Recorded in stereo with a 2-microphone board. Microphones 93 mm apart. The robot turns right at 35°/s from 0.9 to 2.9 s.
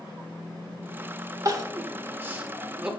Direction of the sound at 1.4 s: 40° right (ahead or behind).